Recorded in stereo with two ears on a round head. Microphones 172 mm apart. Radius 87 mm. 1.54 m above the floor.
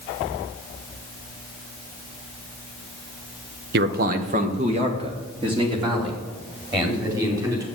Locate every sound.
3.7 s a man speaking: 50° right (ahead or behind), 1.2 m; by 7.7 s 20° right (ahead or behind), 5.5 m